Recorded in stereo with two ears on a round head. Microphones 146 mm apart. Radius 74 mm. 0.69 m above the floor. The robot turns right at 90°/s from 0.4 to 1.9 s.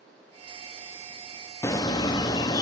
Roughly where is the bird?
Centre.